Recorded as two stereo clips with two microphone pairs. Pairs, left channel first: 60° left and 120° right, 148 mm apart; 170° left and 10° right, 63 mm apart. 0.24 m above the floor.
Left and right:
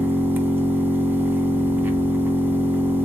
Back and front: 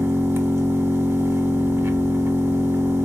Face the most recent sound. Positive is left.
turn(degrees=-45)